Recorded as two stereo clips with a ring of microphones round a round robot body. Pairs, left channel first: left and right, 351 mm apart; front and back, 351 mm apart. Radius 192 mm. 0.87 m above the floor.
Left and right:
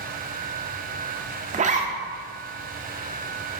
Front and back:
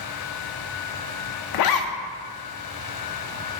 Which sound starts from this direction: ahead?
A zipper, at 1.5 s.